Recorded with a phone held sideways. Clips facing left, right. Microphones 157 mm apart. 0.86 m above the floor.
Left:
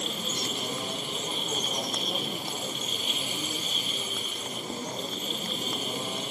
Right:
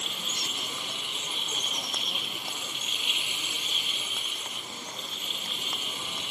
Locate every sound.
0.0 s a machine running: 40° left (ahead or behind)